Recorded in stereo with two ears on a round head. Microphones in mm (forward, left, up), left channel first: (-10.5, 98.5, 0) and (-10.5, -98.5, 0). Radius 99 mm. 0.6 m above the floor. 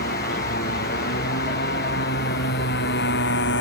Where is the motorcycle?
45° left (ahead or behind); by 3.6 s 55° left (ahead or behind).